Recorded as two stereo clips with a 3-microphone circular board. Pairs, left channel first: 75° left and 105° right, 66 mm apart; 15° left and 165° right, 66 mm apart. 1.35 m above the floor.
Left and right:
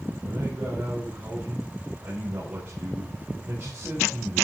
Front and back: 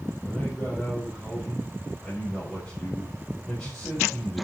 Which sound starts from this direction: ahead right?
A man speaking, at 0.2 s.